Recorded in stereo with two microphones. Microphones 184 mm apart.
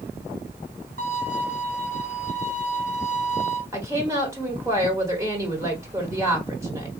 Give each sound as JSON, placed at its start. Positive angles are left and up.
{"t": 1.0, "sound": "a violin", "side_deg": -60, "distance_m": 2.5}
{"t": 3.7, "sound": "a woman speaking", "side_deg": -15, "distance_m": 1.2}